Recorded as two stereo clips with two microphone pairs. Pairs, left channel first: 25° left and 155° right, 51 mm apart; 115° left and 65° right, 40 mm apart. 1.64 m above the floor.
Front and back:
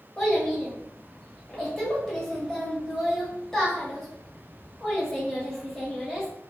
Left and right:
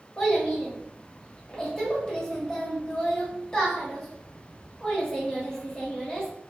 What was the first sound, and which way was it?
A child speaking, 90° left.